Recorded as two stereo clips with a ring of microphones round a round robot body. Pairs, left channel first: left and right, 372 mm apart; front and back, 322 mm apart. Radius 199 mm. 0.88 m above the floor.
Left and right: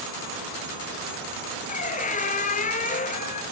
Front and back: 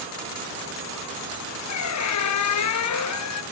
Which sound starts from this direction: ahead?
A squeak, at 1.7 s.